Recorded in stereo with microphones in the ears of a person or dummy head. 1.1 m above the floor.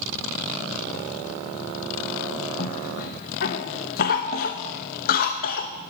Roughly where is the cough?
Left.